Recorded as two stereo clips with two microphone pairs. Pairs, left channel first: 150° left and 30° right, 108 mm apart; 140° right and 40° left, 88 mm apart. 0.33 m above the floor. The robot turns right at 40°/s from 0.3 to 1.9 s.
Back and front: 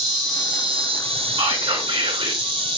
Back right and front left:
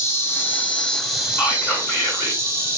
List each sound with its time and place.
0.0 s an insect: 80° right, 1.4 m; by 2.8 s 15° right, 1.4 m
1.4 s whispering: 70° right, 3.5 m; by 2.4 s 50° right, 3.5 m